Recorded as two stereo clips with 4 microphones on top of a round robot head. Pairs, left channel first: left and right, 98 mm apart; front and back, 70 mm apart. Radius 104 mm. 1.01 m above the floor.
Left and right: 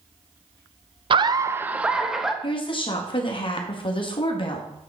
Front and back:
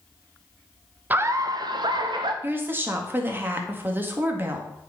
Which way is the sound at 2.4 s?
120° left.